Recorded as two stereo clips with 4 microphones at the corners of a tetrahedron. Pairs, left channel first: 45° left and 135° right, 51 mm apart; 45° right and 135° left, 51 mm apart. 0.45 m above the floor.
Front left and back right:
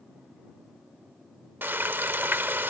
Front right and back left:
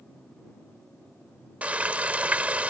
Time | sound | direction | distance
1.6 | frying | 170° right | ?